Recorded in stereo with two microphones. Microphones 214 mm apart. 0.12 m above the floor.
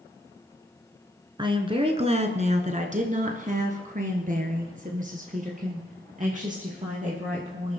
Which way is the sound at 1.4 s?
20° right (ahead or behind).